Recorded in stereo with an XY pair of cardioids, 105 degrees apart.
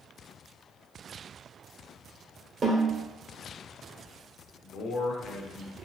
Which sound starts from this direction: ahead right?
A snare drum, at 2.6 s.